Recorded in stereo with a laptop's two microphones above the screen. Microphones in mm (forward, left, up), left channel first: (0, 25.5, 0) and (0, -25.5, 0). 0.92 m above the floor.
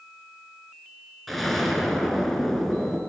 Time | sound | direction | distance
1.3 | an explosion | centre (ahead or behind) | 4 m